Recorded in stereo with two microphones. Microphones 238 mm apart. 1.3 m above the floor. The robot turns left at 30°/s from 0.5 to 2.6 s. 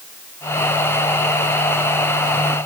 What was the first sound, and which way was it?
Only background noise.